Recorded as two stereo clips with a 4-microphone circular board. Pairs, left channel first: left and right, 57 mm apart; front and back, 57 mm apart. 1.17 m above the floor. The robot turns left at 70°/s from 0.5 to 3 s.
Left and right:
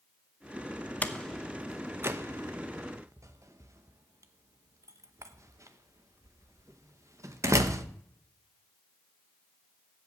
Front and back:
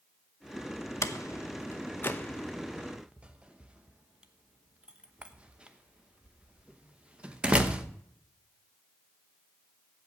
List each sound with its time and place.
1.0 s a door slam: 30° left, 0.8 m; by 7.8 s 110° right, 0.8 m